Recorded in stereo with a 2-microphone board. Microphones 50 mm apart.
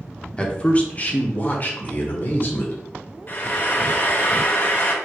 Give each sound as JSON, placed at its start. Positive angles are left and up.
{"t": 0.4, "sound": "a man speaking", "side_deg": 20, "distance_m": 0.7}
{"t": 3.3, "sound": "frying", "side_deg": 40, "distance_m": 1.0}